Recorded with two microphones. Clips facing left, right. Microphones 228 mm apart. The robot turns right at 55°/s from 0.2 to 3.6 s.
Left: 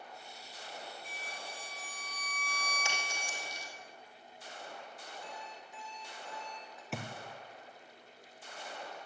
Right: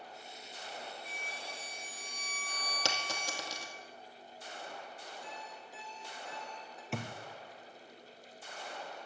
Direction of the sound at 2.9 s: 70° right (ahead or behind).